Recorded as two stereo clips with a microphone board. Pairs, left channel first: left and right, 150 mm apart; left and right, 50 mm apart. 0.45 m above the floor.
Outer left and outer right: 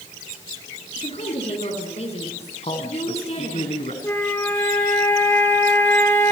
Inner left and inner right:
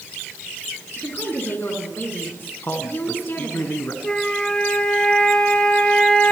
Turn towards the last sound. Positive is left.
turn(degrees=15)  # may be behind; listen again after turning